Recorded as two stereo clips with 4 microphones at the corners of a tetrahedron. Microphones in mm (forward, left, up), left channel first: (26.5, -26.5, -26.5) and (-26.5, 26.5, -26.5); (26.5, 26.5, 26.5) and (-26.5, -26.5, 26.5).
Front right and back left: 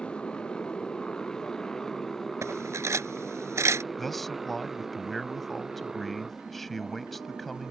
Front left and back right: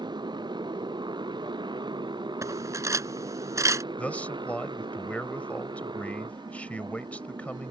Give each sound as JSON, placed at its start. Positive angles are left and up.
{"t": 0.0, "sound": "a motorcycle", "azimuth_deg": -125}
{"t": 2.4, "sound": "cutlery clinking", "azimuth_deg": 180}
{"t": 4.0, "sound": "a man speaking", "azimuth_deg": 35}